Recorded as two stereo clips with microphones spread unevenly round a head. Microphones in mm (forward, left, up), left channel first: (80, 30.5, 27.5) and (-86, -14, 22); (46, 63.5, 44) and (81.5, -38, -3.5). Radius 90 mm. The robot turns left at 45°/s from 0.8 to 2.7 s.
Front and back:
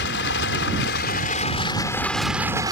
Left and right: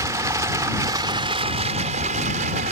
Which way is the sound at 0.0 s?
10° right.